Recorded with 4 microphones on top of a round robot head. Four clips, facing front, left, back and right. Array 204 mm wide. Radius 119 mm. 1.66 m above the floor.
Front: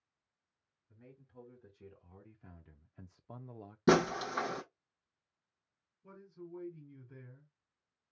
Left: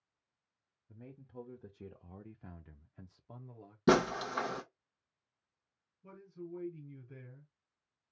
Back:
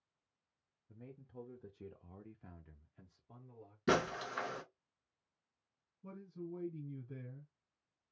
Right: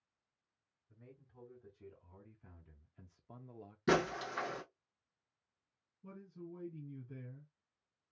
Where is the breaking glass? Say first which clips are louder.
Left 5 dB, front 6 dB; 45° left, 1.0 m.